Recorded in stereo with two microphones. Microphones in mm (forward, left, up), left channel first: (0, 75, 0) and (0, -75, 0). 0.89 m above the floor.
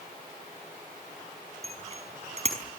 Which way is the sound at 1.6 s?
45° right (ahead or behind).